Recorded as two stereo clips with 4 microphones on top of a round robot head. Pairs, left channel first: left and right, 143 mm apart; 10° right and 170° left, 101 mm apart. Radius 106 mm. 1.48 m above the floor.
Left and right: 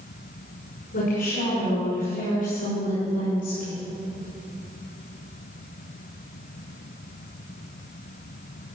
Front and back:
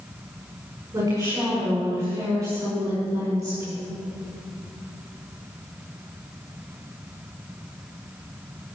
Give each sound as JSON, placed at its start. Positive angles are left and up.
{"t": 0.9, "sound": "a woman speaking", "azimuth_deg": 110, "distance_m": 5.5}